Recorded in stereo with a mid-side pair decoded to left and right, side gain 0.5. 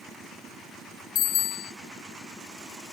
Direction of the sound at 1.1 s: 70° left.